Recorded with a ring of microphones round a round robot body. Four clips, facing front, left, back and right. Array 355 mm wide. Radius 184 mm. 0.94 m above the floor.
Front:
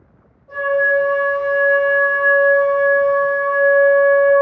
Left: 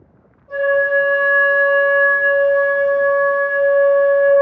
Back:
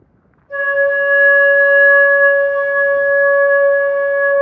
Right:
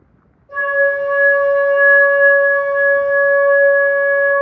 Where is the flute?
45° left, 1.6 m.